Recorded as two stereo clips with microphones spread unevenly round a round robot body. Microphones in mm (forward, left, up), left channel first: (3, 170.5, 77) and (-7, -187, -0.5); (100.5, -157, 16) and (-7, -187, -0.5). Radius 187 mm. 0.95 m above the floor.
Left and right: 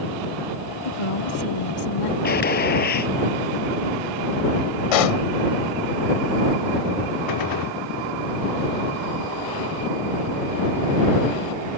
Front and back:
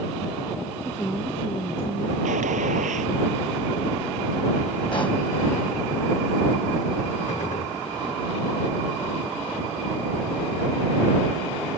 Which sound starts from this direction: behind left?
A gunshot, at 2.2 s.